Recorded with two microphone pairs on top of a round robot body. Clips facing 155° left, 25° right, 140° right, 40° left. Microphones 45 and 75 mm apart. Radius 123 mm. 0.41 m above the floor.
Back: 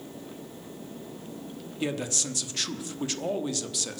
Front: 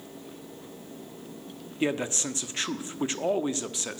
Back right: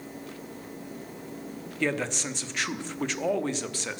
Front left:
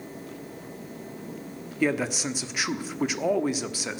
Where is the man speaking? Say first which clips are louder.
Front 3 dB, front left 3 dB; 10° right, 1.3 m.